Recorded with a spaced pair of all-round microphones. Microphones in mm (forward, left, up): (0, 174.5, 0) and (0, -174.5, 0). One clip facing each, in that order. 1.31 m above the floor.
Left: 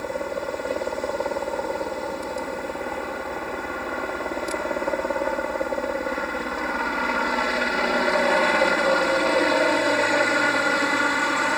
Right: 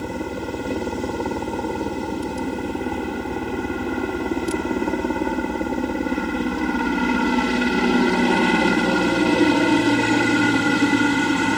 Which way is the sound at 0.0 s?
45° right (ahead or behind).